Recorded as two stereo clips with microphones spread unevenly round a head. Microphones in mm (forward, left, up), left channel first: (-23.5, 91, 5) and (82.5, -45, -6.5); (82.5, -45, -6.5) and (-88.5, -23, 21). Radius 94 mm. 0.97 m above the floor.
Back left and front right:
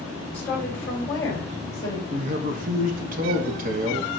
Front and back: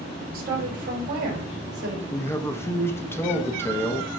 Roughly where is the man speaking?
Right.